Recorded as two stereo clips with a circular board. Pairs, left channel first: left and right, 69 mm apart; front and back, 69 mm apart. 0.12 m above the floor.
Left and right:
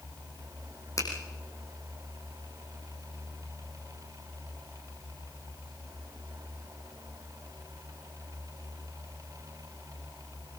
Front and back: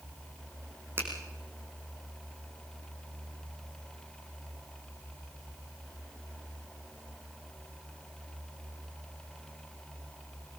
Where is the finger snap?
120° left, 5 m.